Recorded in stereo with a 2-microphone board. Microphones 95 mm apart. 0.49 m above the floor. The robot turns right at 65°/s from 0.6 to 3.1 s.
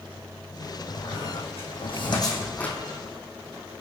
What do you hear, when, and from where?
0.9 s a squeak: 45° left (ahead or behind), 2.5 m; by 2.8 s 10° left (ahead or behind), 2.5 m